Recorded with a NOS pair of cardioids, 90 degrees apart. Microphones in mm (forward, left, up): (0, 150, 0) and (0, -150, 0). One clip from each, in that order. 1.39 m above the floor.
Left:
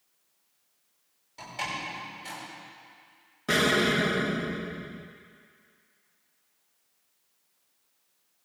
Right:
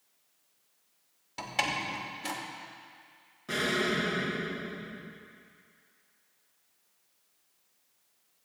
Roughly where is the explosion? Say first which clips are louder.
Left 6 dB; ahead left.